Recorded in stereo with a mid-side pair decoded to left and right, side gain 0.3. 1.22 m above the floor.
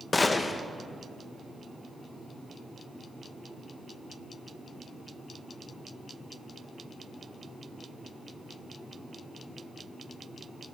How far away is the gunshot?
About 1.0 m.